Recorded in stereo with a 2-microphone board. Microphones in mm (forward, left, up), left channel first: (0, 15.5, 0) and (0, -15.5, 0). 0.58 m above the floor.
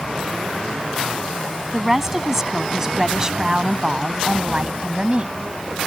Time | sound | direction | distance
1.7 | a woman speaking | 15° right (ahead or behind) | ?